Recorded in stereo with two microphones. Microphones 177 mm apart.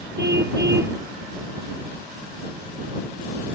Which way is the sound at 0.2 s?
80° right.